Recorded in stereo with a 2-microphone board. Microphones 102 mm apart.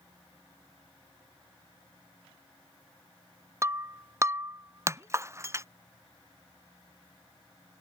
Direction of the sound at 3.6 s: 30° right (ahead or behind).